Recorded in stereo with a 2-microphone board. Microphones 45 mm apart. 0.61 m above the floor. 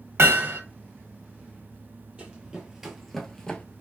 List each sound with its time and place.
0.2 s hammering: 75° right (ahead or behind), 1.0 m
2.2 s running footsteps: 25° right (ahead or behind), 0.8 m; by 3.6 s 20° left (ahead or behind), 0.6 m